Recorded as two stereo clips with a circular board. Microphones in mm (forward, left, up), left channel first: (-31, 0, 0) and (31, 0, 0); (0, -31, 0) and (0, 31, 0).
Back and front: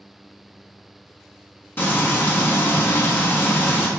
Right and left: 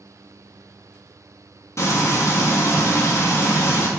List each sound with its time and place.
1.8 s frying: 125° right, 1.4 m